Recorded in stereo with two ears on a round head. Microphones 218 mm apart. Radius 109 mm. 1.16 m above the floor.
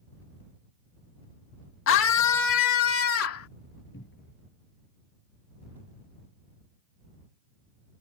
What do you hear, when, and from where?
1.9 s a scream: 55° left (ahead or behind); by 3.5 s 65° left (ahead or behind)
3.9 s a cupboard door: 50° left (ahead or behind)